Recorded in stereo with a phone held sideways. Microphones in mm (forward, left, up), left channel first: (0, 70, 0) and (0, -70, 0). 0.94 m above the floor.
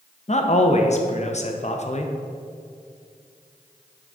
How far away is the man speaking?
About 0.7 m.